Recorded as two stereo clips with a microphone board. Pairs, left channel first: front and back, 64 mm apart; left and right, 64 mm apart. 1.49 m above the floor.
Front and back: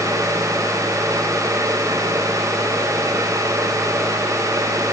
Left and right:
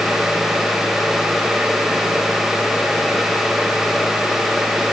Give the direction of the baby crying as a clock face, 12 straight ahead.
I don't hear a baby crying.